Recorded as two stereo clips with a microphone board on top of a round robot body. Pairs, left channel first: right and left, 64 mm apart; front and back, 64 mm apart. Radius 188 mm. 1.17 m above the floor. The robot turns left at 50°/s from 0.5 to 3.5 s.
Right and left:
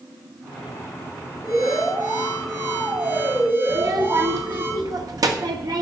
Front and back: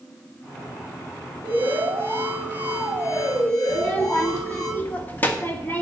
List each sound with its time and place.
1.4 s an alarm: straight behind, 6 m; by 4.7 s 75° left, 6 m
3.7 s a child speaking: 65° left, 1.8 m